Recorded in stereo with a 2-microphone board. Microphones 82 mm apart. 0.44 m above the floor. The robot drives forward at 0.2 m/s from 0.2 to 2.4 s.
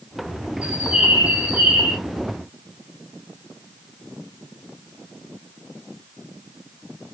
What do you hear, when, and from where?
0.6 s a bird: 10° right (ahead or behind), 0.6 m